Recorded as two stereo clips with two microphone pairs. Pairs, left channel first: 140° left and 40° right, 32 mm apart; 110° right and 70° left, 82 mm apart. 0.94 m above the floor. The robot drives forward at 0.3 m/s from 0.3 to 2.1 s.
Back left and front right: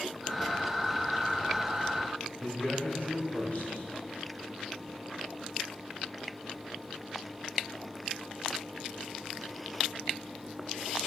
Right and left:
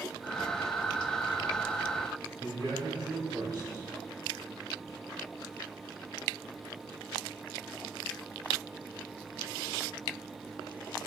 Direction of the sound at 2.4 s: 105° left.